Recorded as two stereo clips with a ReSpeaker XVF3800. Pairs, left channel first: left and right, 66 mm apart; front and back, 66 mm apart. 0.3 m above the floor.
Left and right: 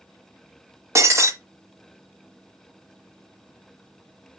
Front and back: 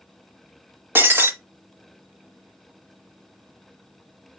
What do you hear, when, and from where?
0.9 s breaking glass: 125° right, 1.0 m